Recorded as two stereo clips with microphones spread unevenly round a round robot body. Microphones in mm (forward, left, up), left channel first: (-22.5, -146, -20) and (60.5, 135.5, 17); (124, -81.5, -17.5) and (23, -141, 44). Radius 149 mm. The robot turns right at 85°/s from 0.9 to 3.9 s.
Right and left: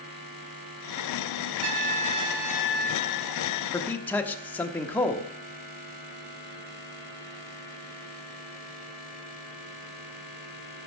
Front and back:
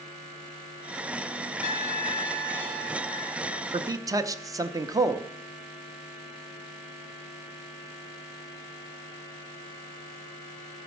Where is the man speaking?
70° right, 0.8 m; by 5.3 s 55° right, 0.8 m.